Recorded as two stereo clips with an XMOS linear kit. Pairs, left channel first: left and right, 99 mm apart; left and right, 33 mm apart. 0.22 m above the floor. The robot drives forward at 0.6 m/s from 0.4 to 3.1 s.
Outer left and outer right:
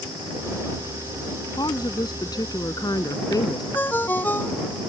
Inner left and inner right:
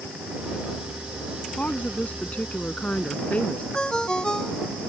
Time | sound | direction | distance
1.6 | a woman speaking | 50° left (ahead or behind) | ?
3.7 | a ringtone | 20° left (ahead or behind) | ?